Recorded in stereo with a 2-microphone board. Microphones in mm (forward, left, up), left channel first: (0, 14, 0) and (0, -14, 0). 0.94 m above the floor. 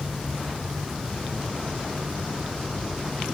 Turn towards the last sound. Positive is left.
No sound to turn to.